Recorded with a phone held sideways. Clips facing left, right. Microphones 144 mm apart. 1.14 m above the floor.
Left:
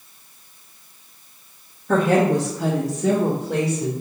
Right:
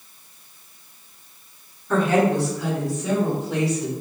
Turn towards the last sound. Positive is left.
turn(degrees=40)  # may be behind; listen again after turning